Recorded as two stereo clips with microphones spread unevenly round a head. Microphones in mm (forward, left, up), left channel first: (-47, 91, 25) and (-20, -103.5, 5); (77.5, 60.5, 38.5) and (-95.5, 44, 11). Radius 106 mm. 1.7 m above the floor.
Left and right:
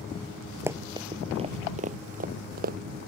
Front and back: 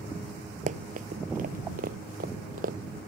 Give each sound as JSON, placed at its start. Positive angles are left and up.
{"t": 0.7, "sound": "running footsteps", "azimuth_deg": -160}